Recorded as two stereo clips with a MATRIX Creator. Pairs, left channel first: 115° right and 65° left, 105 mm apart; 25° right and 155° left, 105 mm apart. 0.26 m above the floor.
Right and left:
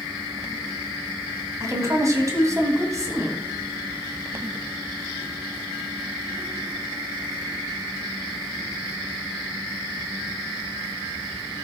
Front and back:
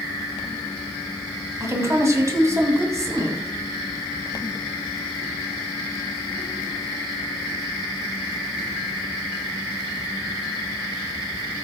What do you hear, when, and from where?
1.6 s a woman speaking: 110° left, 2 m